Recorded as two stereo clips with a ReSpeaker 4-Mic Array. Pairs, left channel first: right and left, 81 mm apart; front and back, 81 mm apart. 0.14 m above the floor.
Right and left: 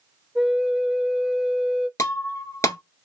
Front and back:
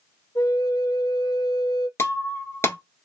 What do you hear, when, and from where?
0.3 s a flute: 5° left, 0.7 m
2.0 s breaking glass: 50° right, 1.0 m